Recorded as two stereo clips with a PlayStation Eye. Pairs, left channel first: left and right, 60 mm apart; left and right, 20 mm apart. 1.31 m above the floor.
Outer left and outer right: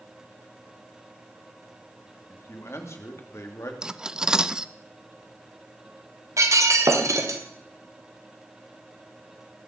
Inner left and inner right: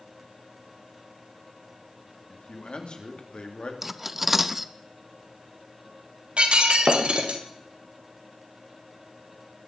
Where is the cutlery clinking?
15° right (ahead or behind), 0.6 m.